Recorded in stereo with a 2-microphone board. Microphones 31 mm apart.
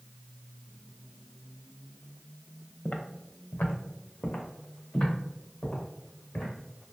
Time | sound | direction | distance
2.9 | footsteps | 55° left (ahead or behind) | 0.9 m